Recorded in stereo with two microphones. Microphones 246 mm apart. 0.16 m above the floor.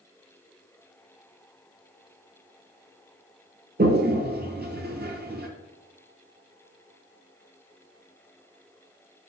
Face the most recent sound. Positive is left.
turn(degrees=-40)  # may be behind; listen again after turning